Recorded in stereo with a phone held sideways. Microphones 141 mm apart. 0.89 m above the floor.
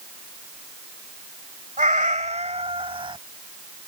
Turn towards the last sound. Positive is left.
turn(degrees=-35)  # may be behind; listen again after turning